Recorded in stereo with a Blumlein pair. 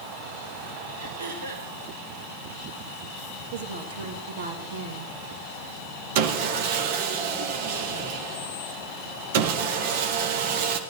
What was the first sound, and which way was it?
Throat clearing, 70° right.